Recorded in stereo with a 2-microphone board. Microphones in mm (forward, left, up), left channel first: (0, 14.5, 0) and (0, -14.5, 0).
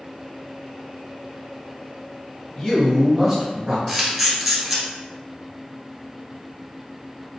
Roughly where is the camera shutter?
Centre.